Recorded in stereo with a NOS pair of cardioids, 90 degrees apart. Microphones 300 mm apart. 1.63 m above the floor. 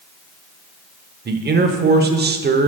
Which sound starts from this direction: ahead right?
A man speaking, at 1.2 s.